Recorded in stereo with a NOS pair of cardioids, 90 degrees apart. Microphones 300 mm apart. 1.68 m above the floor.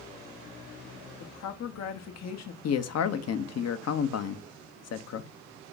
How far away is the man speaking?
About 0.9 m.